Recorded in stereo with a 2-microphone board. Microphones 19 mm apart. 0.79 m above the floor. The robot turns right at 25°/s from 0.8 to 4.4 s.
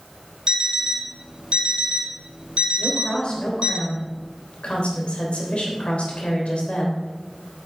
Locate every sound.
0.5 s an alarm clock: 50° right (ahead or behind), 1.6 m; by 3.8 s 55° right (ahead or behind), 1.6 m
2.8 s a woman speaking: 55° left, 3 m; by 7.0 s 95° left, 3 m